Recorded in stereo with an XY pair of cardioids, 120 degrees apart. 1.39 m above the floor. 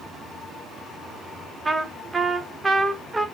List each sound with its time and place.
1.6 s a trumpet: 20° right, 0.9 m